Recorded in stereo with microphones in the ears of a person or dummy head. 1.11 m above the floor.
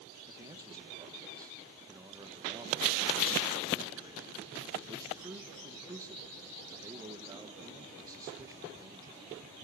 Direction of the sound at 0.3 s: 15° right (ahead or behind).